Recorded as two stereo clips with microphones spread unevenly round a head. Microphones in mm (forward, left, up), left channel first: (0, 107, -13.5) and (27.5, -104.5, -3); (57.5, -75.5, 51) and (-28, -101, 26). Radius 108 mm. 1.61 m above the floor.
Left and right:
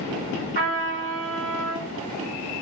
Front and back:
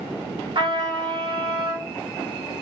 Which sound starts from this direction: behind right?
A trumpet, at 0.6 s.